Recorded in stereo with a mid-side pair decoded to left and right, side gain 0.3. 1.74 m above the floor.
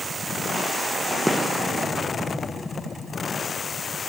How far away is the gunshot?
About 1.6 m.